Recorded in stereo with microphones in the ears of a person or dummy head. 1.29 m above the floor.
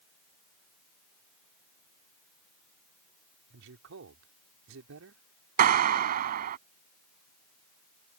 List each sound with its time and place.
3.5 s a man speaking: 70° right (ahead or behind)
5.6 s a clap: 45° right (ahead or behind)